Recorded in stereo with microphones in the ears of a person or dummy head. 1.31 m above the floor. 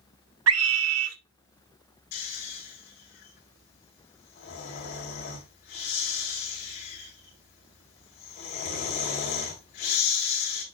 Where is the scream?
80° right, 0.9 m.